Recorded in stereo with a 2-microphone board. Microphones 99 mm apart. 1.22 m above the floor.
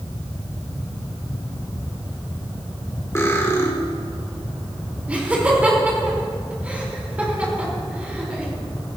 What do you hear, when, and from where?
3.1 s cutlery clinking: 30° left (ahead or behind), 1.8 m
5.1 s laughter: 15° right (ahead or behind), 4 m